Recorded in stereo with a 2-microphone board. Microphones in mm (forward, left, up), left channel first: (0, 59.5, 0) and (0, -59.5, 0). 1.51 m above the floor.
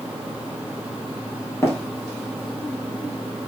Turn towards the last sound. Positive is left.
turn(degrees=20)  # may be behind; listen again after turning